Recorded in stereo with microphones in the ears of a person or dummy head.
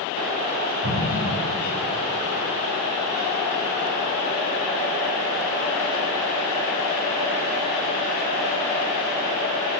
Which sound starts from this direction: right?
An explosion, at 0.8 s.